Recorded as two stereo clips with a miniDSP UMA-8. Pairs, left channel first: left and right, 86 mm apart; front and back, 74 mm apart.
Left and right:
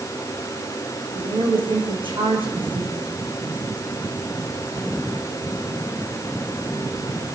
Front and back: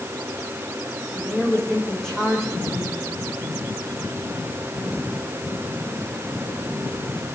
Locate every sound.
1.1 s a woman speaking: 80° right, 6.5 m